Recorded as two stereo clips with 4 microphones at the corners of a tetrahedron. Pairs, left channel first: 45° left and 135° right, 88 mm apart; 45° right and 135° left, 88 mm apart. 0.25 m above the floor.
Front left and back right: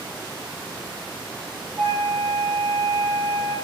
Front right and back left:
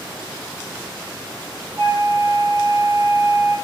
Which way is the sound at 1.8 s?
165° left.